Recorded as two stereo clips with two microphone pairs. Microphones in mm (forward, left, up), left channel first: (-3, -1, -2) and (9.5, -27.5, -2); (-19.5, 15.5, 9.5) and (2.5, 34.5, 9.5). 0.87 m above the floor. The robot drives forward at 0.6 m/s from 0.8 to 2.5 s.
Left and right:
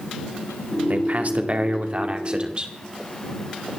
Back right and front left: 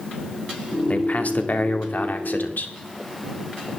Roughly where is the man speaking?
Right.